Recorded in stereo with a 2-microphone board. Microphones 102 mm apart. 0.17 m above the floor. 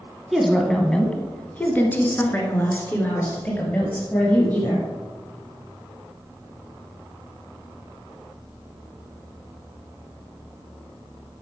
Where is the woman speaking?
Centre (ahead or behind), 1.3 m; by 4.8 s 20° left (ahead or behind), 4.5 m.